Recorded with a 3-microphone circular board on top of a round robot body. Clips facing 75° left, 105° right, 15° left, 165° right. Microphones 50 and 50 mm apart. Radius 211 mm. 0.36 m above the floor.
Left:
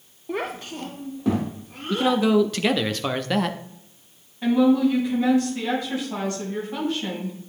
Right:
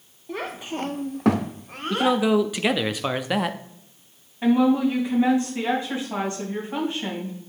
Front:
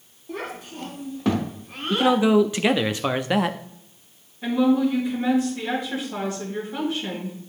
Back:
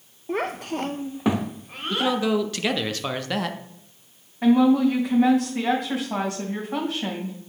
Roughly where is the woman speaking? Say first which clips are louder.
Left 1 dB, back 3 dB; behind.